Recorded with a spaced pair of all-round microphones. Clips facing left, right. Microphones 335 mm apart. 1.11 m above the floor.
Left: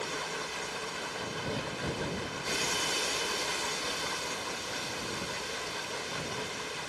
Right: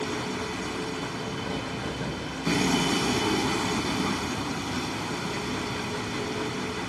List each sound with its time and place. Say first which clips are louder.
0.0 s a vehicle: right 8 dB; 85° right